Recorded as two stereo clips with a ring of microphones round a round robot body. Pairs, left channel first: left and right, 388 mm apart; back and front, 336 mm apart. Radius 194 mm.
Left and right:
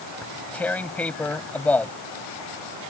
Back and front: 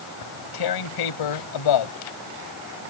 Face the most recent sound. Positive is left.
turn(degrees=175)